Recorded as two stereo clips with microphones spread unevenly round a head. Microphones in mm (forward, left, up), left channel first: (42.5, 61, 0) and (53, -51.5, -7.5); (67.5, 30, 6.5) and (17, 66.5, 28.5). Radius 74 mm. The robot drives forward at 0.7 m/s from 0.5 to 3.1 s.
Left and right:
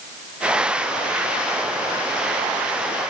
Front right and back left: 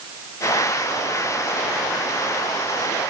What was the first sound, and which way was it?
Only background noise.